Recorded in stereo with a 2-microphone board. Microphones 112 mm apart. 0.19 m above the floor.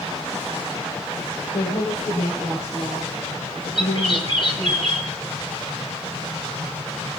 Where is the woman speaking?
65° left (ahead or behind), 5.5 m; by 4.8 s 70° left (ahead or behind), 7.5 m.